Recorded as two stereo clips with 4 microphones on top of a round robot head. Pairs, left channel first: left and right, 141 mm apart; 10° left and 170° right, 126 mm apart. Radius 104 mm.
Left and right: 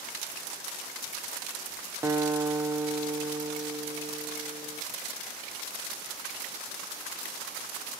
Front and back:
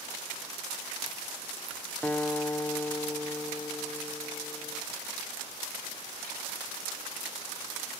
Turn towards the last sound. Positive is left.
turn(degrees=-50)